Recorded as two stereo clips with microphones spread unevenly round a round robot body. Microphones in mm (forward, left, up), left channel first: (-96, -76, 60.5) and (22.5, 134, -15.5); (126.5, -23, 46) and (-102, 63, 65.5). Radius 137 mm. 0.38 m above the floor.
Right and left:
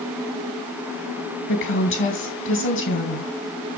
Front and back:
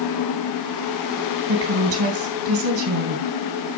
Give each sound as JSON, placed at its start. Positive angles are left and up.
{"t": 1.5, "sound": "a woman speaking", "azimuth_deg": -165, "distance_m": 3.0}